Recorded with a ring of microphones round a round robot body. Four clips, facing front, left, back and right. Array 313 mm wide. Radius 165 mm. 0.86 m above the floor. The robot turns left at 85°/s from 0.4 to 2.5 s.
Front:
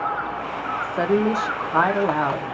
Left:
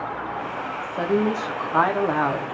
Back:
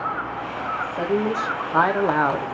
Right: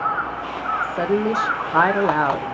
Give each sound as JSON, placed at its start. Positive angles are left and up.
{"t": 0.8, "sound": "a woman speaking", "azimuth_deg": -15, "distance_m": 0.7}